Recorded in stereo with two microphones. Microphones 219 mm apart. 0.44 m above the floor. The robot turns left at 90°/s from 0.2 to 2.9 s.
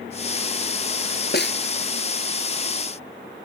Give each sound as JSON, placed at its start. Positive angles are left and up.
{"t": 1.3, "sound": "a snare drum", "side_deg": 50}